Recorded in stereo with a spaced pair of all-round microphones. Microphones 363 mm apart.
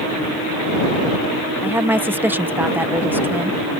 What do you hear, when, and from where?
1.6 s a woman speaking: 5° right (ahead or behind)